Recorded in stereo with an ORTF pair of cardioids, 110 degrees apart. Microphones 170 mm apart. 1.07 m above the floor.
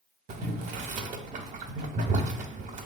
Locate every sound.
0.3 s boiling: 50° right, 0.7 m